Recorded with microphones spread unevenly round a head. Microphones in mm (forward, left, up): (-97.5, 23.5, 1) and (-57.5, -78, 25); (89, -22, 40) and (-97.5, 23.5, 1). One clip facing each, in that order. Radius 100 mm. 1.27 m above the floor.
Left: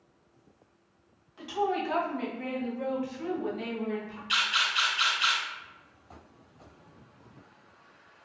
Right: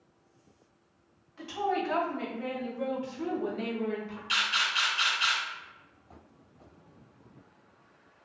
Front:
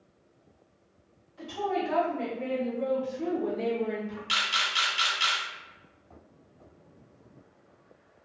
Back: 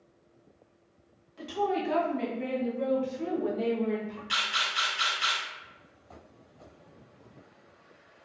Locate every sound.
1.4 s a woman speaking: 175° right, 1.8 m; by 4.2 s 90° right, 1.2 m
4.3 s a camera shutter: 20° right, 1.3 m